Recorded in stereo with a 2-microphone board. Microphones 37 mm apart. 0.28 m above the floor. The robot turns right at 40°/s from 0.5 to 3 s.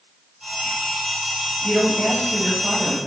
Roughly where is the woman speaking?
Centre.